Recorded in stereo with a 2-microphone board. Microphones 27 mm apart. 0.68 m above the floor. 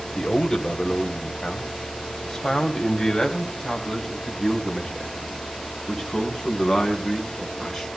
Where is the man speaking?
20° left (ahead or behind), 2.5 m; by 7.9 s 5° left (ahead or behind), 6 m.